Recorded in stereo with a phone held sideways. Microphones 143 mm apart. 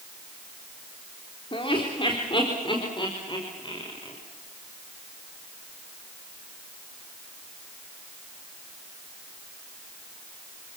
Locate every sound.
1.5 s laughter: 40° left (ahead or behind), 3.5 m; by 4.2 s 35° left (ahead or behind), 5.5 m